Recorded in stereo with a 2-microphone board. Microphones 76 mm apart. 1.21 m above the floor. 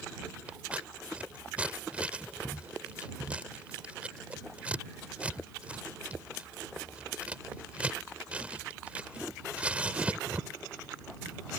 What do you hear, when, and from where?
0.5 s scissors: 15° right (ahead or behind)